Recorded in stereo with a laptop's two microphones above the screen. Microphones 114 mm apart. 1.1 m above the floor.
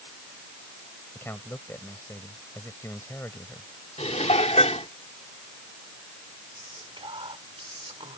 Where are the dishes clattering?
75° left (ahead or behind).